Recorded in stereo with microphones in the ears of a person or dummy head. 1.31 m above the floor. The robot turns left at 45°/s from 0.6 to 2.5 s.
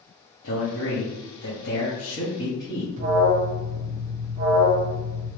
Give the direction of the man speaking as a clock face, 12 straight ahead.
8 o'clock.